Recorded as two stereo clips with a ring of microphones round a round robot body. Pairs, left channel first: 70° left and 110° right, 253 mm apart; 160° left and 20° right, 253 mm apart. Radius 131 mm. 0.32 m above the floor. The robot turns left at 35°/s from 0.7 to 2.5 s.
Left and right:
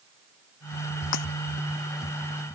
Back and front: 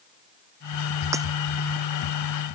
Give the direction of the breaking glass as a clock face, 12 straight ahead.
10 o'clock.